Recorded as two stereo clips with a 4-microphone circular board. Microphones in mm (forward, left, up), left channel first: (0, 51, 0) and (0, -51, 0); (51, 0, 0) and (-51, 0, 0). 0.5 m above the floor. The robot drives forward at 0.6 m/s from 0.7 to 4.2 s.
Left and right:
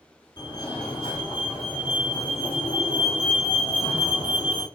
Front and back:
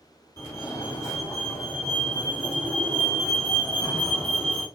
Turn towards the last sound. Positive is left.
turn(degrees=100)